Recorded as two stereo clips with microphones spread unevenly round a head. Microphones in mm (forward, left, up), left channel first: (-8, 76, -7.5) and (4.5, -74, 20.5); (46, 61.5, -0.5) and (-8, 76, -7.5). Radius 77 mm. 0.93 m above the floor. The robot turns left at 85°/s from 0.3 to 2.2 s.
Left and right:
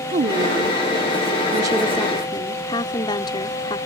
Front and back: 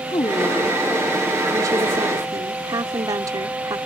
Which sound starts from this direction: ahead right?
A woman speaking, at 0.1 s.